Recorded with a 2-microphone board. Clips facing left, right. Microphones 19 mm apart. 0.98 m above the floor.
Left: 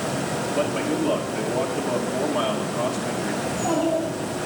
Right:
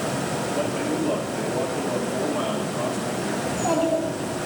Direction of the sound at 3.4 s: 15° right (ahead or behind).